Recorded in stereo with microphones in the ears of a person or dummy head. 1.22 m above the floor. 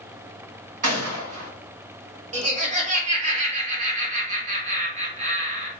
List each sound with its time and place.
0.8 s a gunshot: 40° right (ahead or behind), 1.4 m
2.3 s laughter: 35° right (ahead or behind), 0.9 m